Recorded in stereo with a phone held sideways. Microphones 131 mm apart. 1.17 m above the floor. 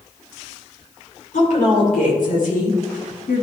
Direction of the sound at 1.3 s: 75° left (ahead or behind).